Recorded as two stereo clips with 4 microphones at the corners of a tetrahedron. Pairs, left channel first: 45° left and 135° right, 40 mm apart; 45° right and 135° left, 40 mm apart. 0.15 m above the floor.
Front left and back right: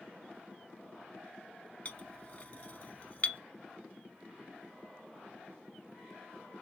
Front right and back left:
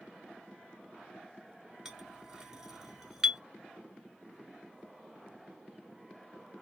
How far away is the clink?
About 0.8 m.